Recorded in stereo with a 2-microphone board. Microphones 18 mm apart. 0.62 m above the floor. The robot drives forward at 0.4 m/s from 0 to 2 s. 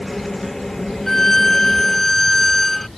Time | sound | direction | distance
1.1 | a violin | 25° left (ahead or behind) | ?